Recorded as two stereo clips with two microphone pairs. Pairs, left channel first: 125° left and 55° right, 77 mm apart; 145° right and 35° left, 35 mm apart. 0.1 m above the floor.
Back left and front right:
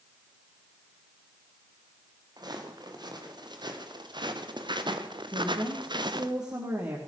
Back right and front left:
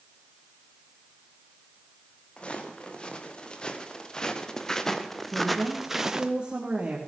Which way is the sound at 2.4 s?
85° right.